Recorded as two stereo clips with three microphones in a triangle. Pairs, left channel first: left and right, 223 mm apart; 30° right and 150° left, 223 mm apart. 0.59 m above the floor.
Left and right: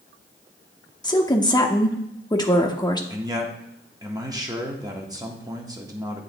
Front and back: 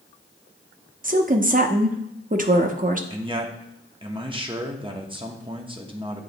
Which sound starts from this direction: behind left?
A woman speaking, at 1.0 s.